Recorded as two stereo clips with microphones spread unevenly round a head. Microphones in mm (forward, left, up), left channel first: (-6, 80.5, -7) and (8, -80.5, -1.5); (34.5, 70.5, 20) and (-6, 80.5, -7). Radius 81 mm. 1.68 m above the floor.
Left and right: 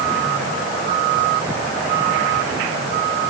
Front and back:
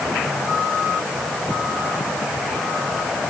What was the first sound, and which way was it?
Only background noise.